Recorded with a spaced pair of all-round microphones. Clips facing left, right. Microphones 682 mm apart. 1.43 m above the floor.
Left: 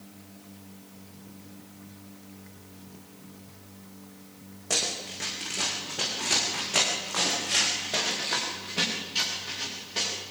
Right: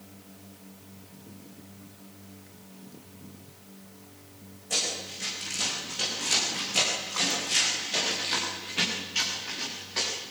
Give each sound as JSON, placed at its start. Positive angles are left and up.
{"t": 4.7, "sound": "running footsteps", "side_deg": 70, "distance_m": 5.5}